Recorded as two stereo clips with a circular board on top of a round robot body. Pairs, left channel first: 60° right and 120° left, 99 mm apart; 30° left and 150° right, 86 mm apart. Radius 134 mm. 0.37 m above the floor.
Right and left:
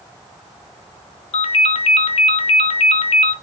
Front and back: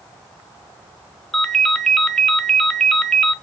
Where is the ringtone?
55° right, 1.3 m.